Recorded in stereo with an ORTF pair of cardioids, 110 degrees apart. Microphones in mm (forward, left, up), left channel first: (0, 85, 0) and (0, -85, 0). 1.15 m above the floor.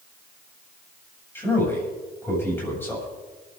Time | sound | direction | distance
1.4 | a man speaking | 15° left | 6.5 m